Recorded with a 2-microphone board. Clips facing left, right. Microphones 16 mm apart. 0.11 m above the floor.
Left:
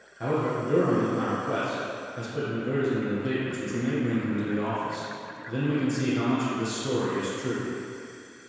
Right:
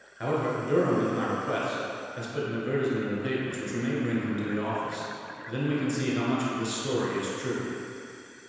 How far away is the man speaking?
About 1.2 m.